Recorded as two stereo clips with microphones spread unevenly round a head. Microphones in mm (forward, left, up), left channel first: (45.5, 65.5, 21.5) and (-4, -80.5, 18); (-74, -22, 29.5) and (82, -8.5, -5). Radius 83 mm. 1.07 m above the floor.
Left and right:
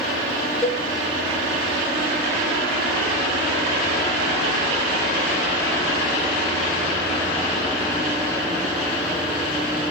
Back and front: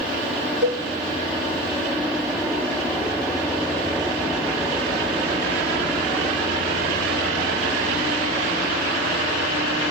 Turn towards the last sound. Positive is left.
turn(degrees=-15)